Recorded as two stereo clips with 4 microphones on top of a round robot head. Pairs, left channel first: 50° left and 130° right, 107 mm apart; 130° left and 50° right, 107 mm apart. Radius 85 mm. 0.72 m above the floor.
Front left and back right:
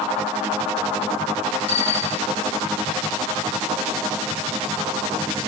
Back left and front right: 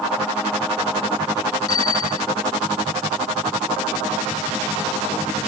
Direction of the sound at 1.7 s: 75° left.